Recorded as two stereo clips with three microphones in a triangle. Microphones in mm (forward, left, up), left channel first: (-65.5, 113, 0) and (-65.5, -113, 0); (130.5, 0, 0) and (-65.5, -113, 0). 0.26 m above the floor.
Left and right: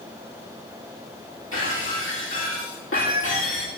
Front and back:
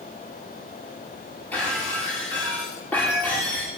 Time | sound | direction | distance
1.5 | breaking glass | 110° left | 9.5 m